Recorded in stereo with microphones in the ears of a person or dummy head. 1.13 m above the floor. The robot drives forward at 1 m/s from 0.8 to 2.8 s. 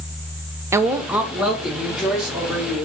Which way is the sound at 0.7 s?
15° right (ahead or behind).